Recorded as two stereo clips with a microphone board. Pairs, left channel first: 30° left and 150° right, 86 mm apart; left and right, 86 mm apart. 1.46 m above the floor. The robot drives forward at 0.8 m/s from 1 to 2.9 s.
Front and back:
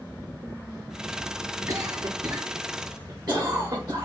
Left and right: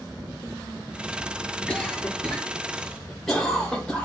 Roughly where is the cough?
Behind.